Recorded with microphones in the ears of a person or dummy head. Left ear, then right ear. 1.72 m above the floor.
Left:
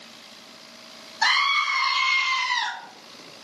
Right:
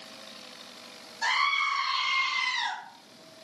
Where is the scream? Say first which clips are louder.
Left 5 dB; 60° left (ahead or behind), 0.9 m; by 2.7 s 70° left (ahead or behind), 1.2 m.